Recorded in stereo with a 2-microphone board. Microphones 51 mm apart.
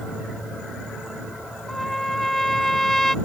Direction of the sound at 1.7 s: 10° left (ahead or behind).